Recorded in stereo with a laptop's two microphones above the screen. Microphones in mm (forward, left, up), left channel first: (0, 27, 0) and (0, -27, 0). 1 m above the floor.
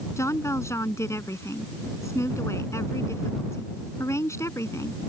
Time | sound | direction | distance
0.2 | a woman speaking | 55° left (ahead or behind) | ?